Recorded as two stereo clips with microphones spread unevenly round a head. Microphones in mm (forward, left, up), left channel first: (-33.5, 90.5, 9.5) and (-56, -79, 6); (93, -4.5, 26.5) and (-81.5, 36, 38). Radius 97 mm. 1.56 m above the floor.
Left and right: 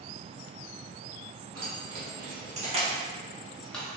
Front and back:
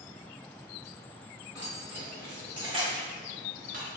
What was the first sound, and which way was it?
Keys jangling, 115° right.